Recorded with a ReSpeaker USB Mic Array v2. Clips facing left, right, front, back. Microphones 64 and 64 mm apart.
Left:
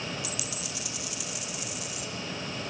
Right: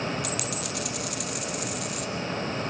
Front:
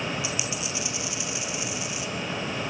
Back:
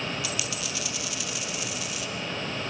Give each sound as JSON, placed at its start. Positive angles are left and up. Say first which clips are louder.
{"t": 0.2, "sound": "a dropped coin", "louder": "right 6 dB, front 2 dB", "azimuth_deg": -65, "distance_m": 2.5}